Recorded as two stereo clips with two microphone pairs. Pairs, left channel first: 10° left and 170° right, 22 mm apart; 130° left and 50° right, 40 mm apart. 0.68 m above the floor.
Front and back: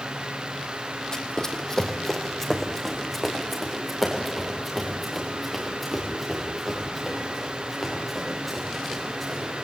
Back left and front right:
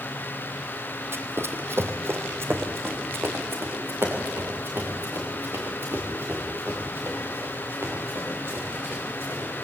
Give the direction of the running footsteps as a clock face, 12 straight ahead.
1 o'clock.